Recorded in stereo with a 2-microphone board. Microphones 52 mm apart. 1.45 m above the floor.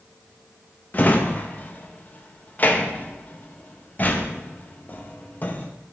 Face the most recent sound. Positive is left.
turn(degrees=35)  # may be behind; listen again after turning